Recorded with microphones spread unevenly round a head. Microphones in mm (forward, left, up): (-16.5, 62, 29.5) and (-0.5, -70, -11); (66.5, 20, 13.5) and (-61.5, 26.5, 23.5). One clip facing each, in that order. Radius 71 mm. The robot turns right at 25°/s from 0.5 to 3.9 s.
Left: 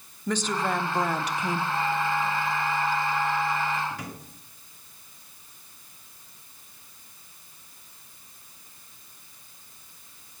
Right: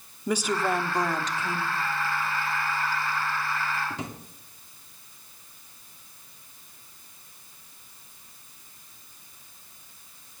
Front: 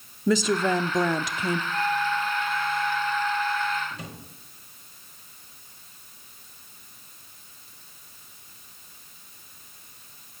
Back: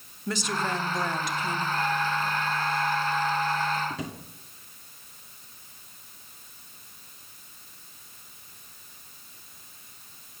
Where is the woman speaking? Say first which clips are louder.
Right 1 dB, front 7 dB; 5° right, 0.9 m; by 1.6 s 25° left, 0.9 m.